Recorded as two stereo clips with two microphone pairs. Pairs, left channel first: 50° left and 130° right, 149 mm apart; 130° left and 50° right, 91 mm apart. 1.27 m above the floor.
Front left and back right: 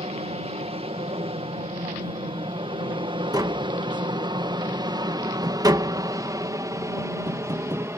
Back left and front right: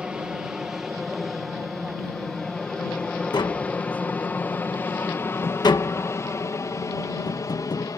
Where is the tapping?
170° left.